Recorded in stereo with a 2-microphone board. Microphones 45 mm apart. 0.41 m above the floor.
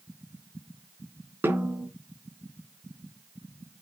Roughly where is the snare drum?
Right.